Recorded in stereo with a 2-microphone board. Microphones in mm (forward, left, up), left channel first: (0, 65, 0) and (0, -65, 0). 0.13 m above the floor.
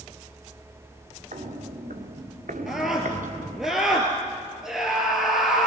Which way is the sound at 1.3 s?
70° right (ahead or behind).